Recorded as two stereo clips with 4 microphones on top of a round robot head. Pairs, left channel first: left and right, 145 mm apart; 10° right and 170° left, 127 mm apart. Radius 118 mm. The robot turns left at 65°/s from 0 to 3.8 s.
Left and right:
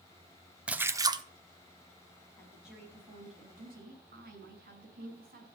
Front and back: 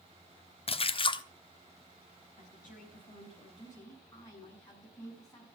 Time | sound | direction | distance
0.7 | a splash | 10° right | 1.2 m
2.4 | a woman speaking | 15° left | 7.5 m